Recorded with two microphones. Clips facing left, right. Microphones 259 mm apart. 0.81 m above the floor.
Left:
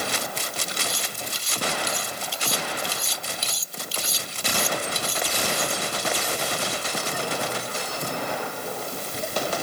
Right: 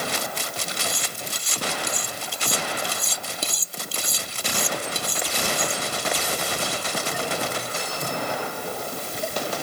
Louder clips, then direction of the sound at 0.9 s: Right 1 dB; 55° right (ahead or behind).